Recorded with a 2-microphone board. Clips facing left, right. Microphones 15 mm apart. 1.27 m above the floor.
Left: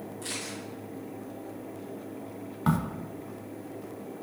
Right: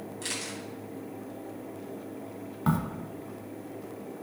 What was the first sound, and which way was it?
A camera shutter, 60° right (ahead or behind).